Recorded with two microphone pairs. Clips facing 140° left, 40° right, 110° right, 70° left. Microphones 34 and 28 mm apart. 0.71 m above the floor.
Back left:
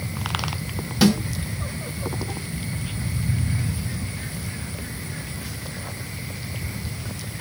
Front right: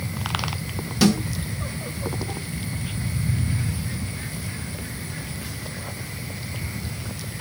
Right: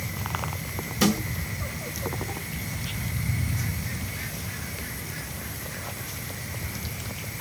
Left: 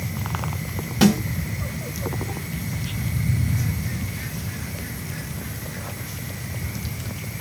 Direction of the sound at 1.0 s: 65° left.